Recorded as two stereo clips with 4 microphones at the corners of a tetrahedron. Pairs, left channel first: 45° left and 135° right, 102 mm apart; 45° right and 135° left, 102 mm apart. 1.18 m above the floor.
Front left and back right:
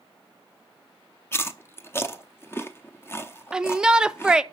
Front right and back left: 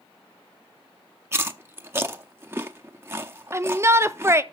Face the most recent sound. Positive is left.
turn(degrees=150)